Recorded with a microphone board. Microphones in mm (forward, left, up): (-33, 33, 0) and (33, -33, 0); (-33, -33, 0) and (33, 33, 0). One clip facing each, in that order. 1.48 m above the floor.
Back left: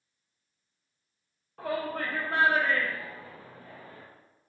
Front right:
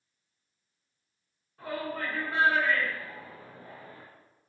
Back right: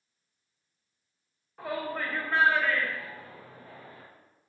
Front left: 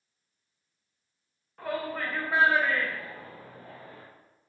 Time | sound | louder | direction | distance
1.6 | a shout | back left 3 dB, front left 1 dB | 140° left | 1.1 m